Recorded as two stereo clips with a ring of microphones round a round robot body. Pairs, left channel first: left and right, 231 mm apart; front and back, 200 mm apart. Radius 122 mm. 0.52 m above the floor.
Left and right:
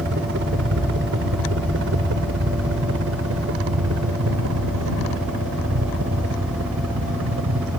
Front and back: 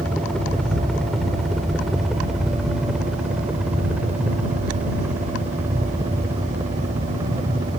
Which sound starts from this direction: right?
A helicopter, at 0.0 s.